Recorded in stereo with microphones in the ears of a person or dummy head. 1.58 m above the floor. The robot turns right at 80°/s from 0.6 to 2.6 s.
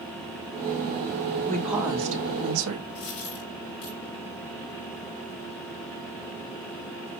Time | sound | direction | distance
1.5 | a woman speaking | 165° left | 2.5 m
3.0 | a dropped coin | 55° left (ahead or behind) | 3 m